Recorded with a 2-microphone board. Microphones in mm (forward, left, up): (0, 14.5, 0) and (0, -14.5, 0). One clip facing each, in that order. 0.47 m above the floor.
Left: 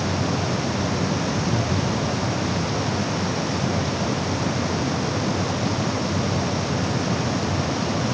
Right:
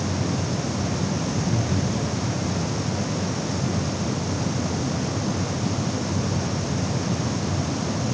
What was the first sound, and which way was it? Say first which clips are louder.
Laughter: left 2 dB; 5° right (ahead or behind).